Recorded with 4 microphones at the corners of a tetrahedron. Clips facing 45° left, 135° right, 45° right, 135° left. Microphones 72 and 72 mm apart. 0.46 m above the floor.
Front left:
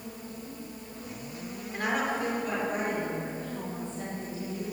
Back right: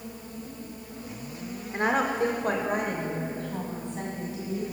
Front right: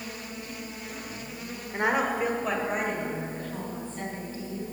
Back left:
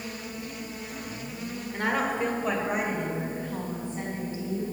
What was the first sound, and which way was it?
A woman speaking, 90° right.